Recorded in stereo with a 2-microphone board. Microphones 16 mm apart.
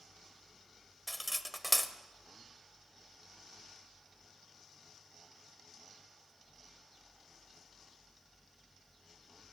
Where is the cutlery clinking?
5° left (ahead or behind), 0.7 m.